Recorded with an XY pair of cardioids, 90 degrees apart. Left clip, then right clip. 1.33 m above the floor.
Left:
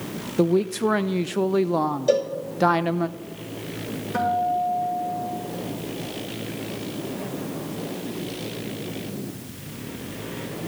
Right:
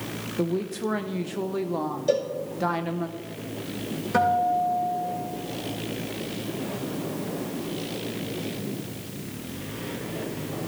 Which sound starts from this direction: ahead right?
A guitar, at 4.1 s.